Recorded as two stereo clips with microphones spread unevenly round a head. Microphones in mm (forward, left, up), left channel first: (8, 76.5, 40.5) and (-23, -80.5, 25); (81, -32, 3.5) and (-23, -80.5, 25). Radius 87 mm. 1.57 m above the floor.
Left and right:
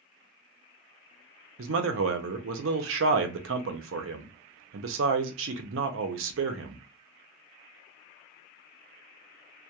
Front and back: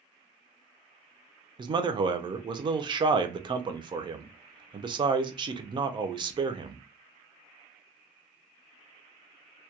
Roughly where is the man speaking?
Right.